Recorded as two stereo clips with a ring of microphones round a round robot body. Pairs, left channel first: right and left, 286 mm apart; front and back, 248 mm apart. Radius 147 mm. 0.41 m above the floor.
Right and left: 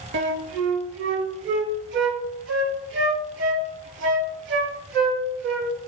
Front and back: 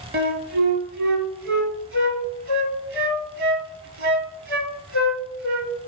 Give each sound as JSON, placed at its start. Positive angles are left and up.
{"t": 0.1, "sound": "a flute", "azimuth_deg": 140, "distance_m": 1.4}